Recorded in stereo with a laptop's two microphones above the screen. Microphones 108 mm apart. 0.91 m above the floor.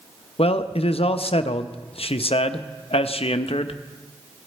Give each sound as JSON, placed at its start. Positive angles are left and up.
{"t": 0.4, "sound": "a man speaking", "side_deg": 65, "distance_m": 0.6}